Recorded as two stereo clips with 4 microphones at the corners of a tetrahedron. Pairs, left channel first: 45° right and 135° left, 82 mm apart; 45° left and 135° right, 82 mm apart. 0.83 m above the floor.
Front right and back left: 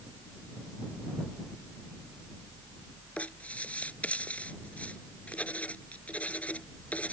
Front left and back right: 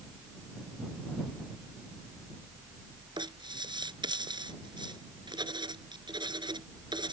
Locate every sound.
3.2 s writing: 120° right